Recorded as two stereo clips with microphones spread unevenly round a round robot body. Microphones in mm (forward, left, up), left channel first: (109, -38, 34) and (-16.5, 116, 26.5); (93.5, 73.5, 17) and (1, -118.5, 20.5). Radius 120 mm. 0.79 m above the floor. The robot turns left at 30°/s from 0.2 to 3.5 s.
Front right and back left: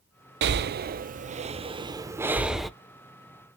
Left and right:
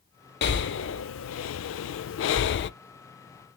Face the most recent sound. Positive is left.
turn(degrees=15)